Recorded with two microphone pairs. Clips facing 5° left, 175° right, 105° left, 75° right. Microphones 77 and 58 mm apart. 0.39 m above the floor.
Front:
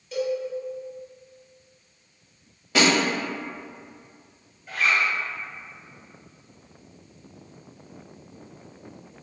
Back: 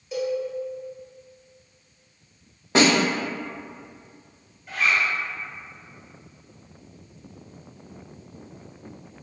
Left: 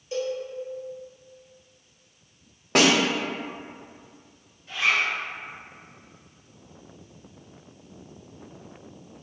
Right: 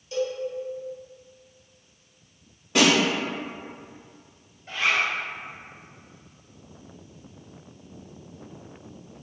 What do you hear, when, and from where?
0.1 s a cowbell: 120° left, 1.3 m
2.8 s a snare drum: 130° left, 0.6 m
4.7 s a zipper: 80° right, 0.9 m